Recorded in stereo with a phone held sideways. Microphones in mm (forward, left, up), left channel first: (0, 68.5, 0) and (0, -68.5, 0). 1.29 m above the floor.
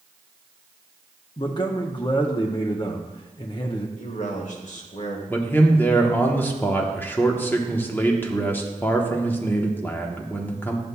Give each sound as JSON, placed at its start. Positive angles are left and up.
{"t": 1.4, "sound": "a man speaking", "side_deg": 35, "distance_m": 0.6}
{"t": 4.0, "sound": "a man speaking", "side_deg": 65, "distance_m": 1.4}
{"t": 5.3, "sound": "a man speaking", "side_deg": 15, "distance_m": 0.9}